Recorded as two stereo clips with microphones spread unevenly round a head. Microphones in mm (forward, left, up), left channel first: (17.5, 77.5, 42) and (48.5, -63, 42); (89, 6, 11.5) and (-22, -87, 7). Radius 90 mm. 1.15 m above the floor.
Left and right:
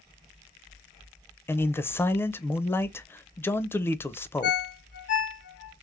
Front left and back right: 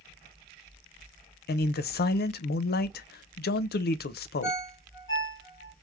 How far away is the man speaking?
About 0.6 m.